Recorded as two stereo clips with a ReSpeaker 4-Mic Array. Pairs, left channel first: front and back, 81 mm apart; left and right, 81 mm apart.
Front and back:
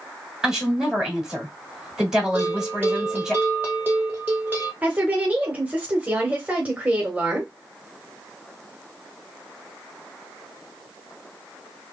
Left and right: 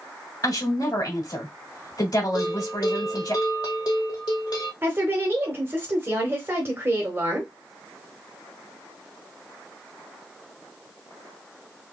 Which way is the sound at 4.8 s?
125° right.